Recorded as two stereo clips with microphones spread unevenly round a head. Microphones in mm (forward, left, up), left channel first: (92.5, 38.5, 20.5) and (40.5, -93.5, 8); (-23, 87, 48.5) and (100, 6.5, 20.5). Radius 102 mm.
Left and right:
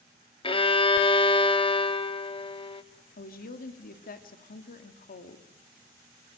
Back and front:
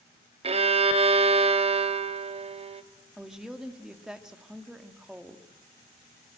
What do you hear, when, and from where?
0.4 s a violin: 15° left, 1.6 m
3.2 s a woman speaking: 50° left, 2.5 m